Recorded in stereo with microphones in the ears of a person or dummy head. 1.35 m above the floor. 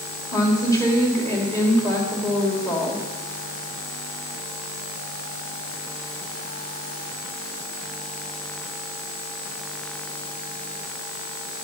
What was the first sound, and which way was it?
A woman speaking, 15° left (ahead or behind).